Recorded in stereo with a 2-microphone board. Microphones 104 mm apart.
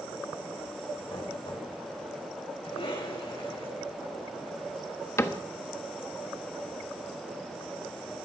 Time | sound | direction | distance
1.1 | knocking | 45° left (ahead or behind) | 5.5 m
2.6 | a cough | 60° left (ahead or behind) | 7 m
5.2 | a cupboard door | 25° left (ahead or behind) | 1.2 m